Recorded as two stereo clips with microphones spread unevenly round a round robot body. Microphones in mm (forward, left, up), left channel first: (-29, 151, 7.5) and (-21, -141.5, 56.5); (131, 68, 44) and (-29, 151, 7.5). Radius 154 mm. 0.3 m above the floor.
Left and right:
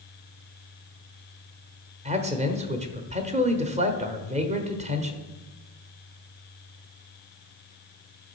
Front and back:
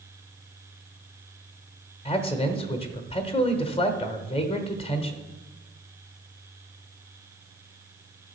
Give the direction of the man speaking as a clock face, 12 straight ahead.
1 o'clock.